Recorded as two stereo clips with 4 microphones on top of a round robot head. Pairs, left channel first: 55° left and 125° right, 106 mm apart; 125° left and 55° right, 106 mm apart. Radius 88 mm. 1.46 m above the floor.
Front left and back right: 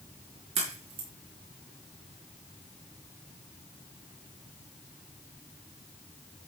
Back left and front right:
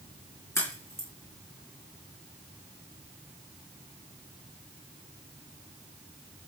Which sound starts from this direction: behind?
A crack, at 0.6 s.